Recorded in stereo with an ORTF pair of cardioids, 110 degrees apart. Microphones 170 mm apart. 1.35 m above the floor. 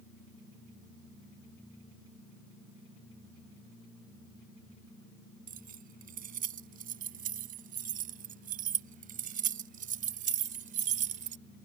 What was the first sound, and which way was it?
Keys jangling, 55° right.